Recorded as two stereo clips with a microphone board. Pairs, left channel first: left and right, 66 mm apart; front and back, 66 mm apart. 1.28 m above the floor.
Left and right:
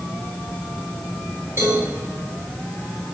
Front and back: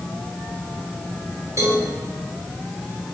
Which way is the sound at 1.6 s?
140° right.